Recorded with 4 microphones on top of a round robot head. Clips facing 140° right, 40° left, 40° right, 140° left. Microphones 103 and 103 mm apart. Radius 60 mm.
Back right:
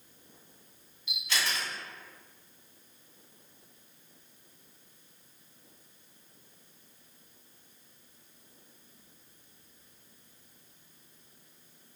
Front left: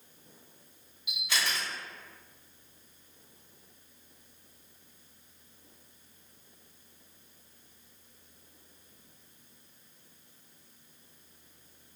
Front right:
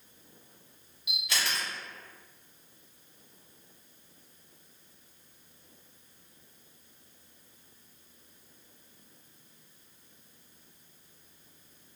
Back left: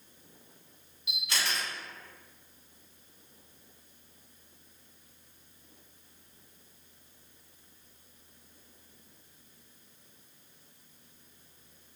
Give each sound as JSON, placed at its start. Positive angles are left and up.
{"t": 1.1, "sound": "a camera shutter", "azimuth_deg": -40, "distance_m": 1.2}